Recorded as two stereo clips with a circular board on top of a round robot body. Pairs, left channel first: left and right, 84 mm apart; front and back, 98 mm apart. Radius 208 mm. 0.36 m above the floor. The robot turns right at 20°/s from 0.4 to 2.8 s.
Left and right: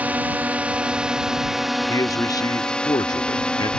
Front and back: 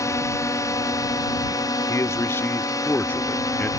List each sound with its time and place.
0.0 s a drone: 30° right; by 3.8 s 20° left
1.9 s a man speaking: 50° left; by 3.7 s 70° left